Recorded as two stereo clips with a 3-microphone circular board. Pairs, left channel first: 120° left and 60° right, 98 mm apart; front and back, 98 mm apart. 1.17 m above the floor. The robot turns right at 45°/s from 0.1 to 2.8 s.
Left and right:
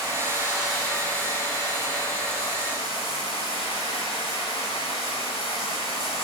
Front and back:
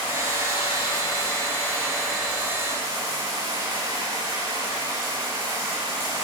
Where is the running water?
Straight ahead, 5.5 m; by 6.2 s 125° left, 5.5 m.